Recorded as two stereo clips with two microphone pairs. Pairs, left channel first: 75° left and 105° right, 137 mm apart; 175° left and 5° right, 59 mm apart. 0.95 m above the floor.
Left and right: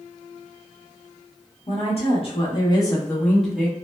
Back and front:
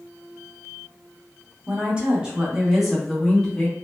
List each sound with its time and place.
1.7 s a woman speaking: 60° left, 1.3 m; by 3.7 s 165° right, 0.8 m